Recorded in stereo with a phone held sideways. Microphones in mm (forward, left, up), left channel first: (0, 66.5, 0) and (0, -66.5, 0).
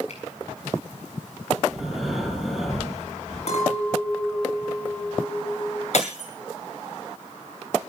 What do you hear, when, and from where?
0.1 s a finger snap: 60° left (ahead or behind), 6.5 m
1.7 s breathing: centre (ahead or behind), 8.5 m
3.5 s a clink: 55° left (ahead or behind), 5.5 m
5.9 s breaking glass: 55° left (ahead or behind), 8.5 m